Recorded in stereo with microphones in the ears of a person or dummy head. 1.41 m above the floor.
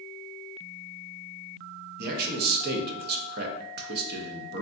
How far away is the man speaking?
About 0.5 m.